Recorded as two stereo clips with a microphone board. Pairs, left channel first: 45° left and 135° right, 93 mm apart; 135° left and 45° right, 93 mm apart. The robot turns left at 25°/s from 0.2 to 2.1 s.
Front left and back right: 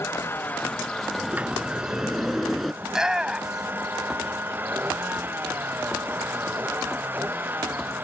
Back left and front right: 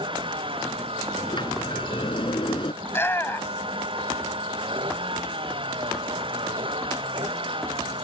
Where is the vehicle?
20° right; by 8.0 s 65° right.